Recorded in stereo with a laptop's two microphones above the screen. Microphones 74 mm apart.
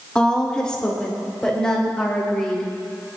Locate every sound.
0.1 s a woman speaking: 15° left (ahead or behind), 2.5 m; by 2.7 s 10° left (ahead or behind), 5.5 m